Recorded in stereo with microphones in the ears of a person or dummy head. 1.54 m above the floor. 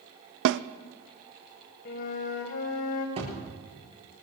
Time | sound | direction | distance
0.5 | a snare drum | 70° right (ahead or behind) | 0.6 m
1.9 | a flute | 45° left (ahead or behind) | 2.0 m
3.2 | a thud | 30° right (ahead or behind) | 8.5 m